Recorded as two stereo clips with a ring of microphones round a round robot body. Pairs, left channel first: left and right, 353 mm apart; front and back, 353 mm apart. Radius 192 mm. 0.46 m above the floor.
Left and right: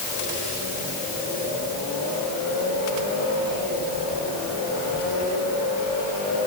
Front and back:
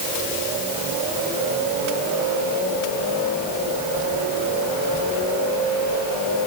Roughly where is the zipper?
I don't hear a zipper.